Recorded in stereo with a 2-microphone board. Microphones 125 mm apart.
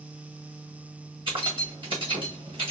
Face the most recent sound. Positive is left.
turn(degrees=-40)  # may be behind; listen again after turning